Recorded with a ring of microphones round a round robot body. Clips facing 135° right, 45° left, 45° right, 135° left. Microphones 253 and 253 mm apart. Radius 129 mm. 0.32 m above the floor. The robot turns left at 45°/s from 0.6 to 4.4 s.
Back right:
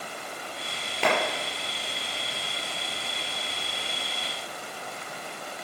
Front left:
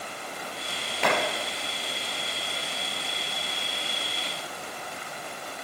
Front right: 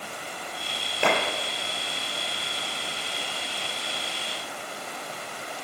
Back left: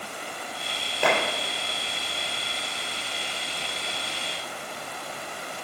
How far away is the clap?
About 6 m.